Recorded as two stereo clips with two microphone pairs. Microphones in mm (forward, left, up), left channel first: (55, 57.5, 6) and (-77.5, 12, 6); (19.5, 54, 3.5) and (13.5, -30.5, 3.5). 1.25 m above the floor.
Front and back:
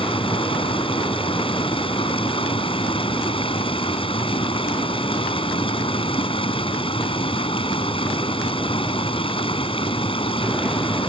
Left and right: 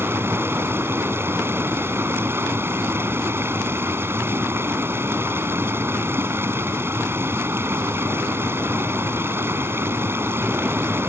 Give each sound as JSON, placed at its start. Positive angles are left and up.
{"t": 0.0, "sound": "running water", "azimuth_deg": -30}